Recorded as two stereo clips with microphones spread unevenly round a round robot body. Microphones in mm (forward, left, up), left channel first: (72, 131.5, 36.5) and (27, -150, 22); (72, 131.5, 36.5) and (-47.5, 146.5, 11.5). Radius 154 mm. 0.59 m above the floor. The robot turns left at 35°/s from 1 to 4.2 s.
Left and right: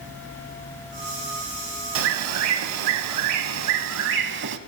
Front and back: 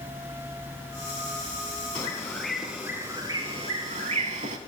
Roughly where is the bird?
Ahead right.